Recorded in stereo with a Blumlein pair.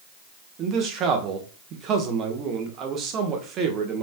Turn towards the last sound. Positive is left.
turn(degrees=-30)